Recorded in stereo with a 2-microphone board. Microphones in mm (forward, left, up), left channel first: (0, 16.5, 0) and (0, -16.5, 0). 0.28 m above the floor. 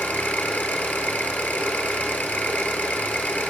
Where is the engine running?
75° left (ahead or behind), 5 m.